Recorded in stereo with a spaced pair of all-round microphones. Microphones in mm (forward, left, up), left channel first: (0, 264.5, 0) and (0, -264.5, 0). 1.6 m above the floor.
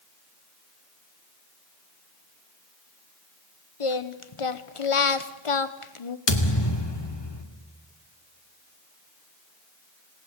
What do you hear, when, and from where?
3.8 s singing: 70° left (ahead or behind), 1.0 m
6.3 s a thud: 50° left (ahead or behind), 2.5 m